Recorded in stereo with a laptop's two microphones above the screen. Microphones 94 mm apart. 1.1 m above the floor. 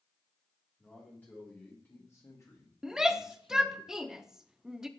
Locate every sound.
0.8 s a man speaking: 15° left (ahead or behind), 3 m; by 3.8 s 75° left (ahead or behind), 1.0 m
2.8 s a shout: 5° right (ahead or behind), 0.8 m